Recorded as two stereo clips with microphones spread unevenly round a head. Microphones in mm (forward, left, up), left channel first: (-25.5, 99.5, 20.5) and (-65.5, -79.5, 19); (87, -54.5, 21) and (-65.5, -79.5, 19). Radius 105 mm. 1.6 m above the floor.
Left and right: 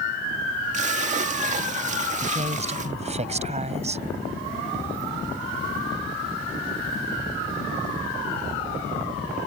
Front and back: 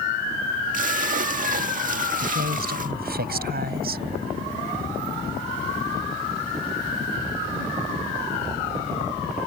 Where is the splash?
150° right.